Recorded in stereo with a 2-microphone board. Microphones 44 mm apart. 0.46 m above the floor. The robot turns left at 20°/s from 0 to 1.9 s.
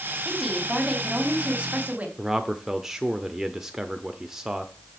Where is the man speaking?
10° right (ahead or behind), 0.9 m.